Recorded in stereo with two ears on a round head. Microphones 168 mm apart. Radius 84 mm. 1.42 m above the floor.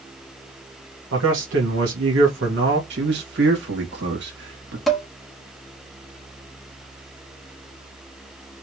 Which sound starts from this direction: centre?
Dishes clattering, at 4.9 s.